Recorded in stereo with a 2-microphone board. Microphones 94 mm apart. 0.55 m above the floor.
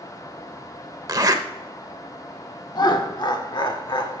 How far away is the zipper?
About 0.7 m.